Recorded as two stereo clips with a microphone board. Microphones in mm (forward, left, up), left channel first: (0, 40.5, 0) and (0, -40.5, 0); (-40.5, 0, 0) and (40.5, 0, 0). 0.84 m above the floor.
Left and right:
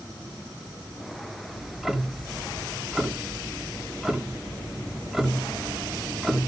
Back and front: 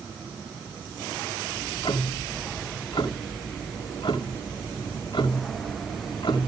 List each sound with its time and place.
1.5 s ticking: 175° right, 1.7 m